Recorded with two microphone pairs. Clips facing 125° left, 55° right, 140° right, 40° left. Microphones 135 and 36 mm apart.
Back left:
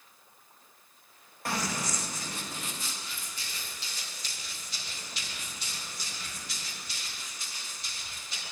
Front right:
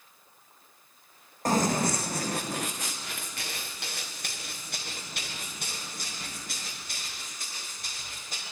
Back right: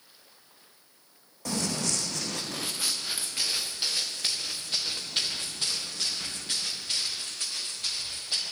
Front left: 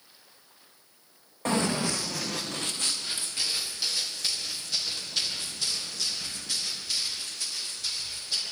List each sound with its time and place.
1.4 s running footsteps: 10° right, 1.6 m; by 8.4 s 95° right, 9.5 m